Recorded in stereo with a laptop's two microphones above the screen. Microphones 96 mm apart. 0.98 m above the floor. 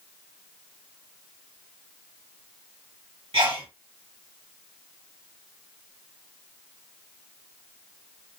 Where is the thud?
No thud in this recording.